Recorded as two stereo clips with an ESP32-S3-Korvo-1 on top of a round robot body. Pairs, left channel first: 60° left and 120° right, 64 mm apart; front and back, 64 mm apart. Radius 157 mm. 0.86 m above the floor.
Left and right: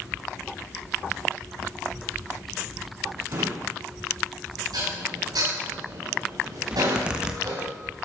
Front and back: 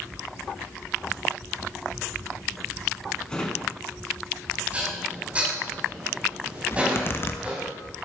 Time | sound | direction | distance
3.3 | a drawer | 75° right | 4 m
4.7 | dishes clattering | 110° right | 5.5 m
6.7 | a zipper | 45° right | 1.7 m